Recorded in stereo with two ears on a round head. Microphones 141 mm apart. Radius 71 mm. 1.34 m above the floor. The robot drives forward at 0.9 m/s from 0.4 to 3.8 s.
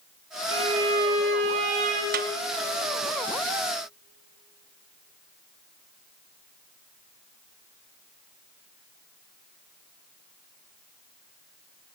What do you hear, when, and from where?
0.5 s a violin: 40° right (ahead or behind), 4.5 m; by 2.0 s 55° right (ahead or behind), 3.5 m
2.1 s a snare drum: 65° right (ahead or behind), 1.0 m; by 2.3 s 70° right (ahead or behind), 0.9 m